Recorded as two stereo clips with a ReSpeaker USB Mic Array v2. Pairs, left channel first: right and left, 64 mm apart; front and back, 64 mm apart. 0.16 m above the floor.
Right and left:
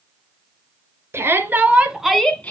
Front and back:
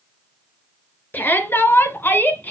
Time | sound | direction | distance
1.1 | a shout | 55° left | 2 m